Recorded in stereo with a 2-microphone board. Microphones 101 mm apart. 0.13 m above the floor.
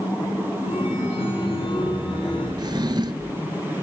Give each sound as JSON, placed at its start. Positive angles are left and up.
{"t": 0.7, "sound": "a chime", "side_deg": 65, "distance_m": 10.0}
{"t": 2.6, "sound": "a drawer", "side_deg": -45, "distance_m": 0.6}